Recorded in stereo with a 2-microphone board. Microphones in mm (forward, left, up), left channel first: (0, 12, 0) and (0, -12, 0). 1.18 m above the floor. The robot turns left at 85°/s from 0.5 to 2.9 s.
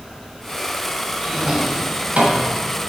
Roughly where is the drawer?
Centre.